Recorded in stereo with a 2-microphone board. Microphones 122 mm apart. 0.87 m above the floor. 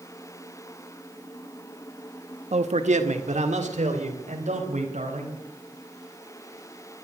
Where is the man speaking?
65° right (ahead or behind), 0.9 m; by 5.4 s 75° right (ahead or behind), 4.5 m.